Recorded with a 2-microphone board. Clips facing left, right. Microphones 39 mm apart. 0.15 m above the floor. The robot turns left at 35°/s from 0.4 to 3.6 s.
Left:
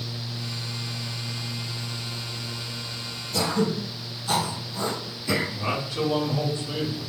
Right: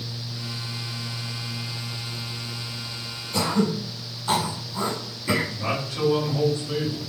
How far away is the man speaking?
About 1.8 m.